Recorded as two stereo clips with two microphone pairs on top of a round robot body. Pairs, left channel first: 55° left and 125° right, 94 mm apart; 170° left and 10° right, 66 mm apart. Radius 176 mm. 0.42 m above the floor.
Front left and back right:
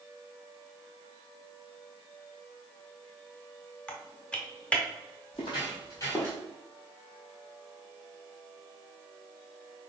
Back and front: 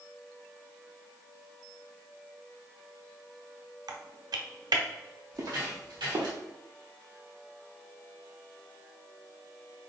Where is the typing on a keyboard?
25° right, 0.7 m.